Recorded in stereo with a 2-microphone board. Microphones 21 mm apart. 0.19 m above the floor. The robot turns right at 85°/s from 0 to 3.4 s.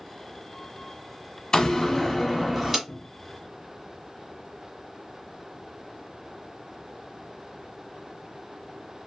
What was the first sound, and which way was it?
A door slam, 90° left.